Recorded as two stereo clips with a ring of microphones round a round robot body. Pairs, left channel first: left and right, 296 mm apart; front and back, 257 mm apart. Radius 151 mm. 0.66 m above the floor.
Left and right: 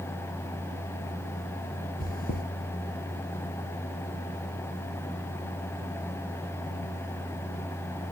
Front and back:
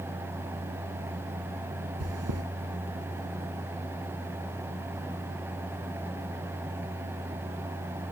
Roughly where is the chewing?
Behind left.